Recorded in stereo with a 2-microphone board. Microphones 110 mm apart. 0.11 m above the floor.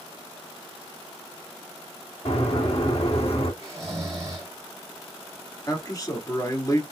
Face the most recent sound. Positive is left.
turn(degrees=35)  # may be behind; listen again after turning